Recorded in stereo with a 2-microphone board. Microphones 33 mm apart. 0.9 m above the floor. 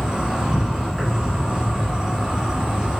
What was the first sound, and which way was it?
An insect, 25° right (ahead or behind).